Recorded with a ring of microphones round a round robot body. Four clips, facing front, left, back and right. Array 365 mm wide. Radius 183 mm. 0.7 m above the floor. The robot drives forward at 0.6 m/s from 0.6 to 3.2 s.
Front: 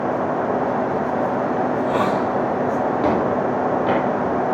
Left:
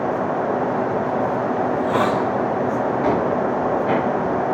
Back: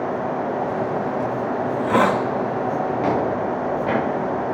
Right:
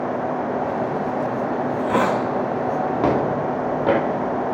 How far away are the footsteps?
About 5 m.